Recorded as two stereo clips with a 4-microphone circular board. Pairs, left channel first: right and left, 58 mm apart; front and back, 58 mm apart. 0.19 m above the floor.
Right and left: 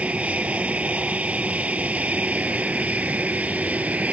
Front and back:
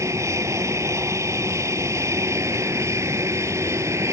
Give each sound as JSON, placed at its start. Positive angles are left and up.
{"t": 0.0, "sound": "an aircraft", "azimuth_deg": 155}